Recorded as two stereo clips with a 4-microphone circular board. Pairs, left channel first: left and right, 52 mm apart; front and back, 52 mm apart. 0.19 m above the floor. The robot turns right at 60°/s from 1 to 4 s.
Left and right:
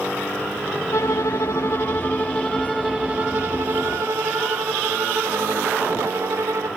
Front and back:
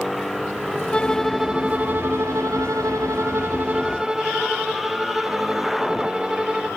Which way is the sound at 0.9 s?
75° left.